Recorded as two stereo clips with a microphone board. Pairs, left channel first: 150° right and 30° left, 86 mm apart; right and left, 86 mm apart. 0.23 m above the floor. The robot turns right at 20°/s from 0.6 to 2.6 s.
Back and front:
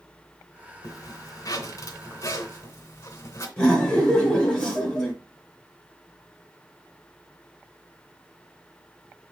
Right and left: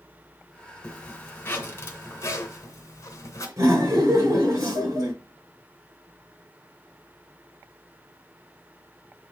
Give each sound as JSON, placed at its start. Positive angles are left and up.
{"t": 0.8, "sound": "a zipper", "azimuth_deg": -155, "distance_m": 1.9}
{"t": 3.6, "sound": "laughter", "azimuth_deg": 130, "distance_m": 4.0}